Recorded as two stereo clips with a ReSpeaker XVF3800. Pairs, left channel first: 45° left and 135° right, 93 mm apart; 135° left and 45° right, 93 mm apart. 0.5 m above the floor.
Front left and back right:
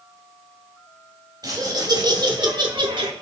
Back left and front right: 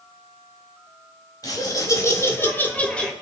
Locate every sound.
1.4 s laughter: straight behind, 2.5 m; by 3.1 s 145° right, 1.8 m